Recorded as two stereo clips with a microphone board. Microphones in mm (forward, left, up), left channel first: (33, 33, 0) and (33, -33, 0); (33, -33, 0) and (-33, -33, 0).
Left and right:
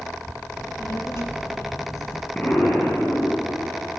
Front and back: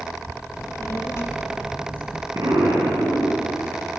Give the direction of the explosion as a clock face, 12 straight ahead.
7 o'clock.